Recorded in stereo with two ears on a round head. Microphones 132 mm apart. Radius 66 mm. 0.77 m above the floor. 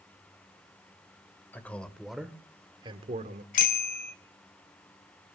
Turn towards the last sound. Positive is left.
turn(degrees=60)  # may be behind; listen again after turning